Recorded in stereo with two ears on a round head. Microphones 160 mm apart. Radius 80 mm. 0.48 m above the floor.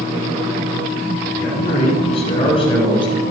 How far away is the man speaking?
About 5 m.